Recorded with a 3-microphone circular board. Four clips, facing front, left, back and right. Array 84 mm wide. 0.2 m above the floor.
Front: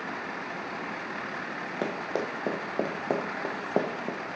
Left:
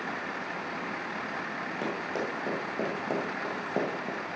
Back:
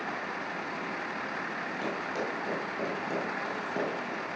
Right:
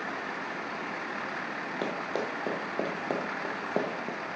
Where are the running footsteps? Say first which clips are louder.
Right 1 dB, front 4 dB; 10° right, 3.5 m; by 4.2 s 5° right, 2 m.